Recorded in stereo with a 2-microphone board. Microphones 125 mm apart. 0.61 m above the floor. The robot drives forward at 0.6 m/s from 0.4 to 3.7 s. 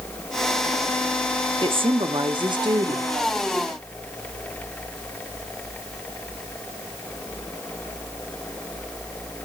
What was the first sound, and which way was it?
A woman speaking, 45° right (ahead or behind).